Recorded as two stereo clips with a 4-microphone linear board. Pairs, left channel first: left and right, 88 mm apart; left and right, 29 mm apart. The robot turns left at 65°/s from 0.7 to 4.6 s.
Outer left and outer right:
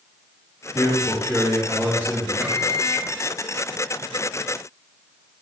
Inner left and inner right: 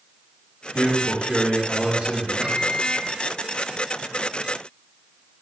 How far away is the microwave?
About 0.8 m.